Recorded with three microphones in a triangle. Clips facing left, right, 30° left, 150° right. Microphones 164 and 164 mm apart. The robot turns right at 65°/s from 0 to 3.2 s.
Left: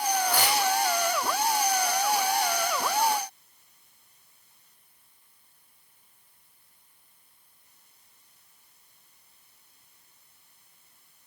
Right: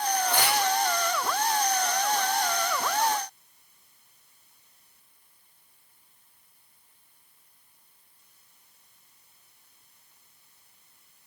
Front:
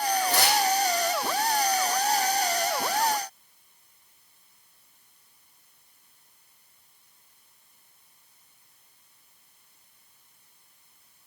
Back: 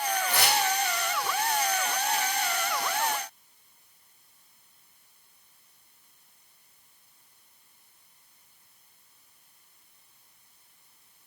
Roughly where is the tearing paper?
Ahead.